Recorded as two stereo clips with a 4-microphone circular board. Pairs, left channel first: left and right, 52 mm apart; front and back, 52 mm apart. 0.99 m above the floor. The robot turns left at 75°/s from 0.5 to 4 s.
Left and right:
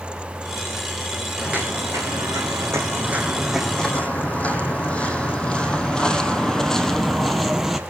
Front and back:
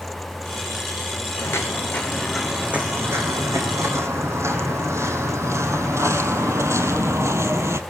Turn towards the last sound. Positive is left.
turn(degrees=-175)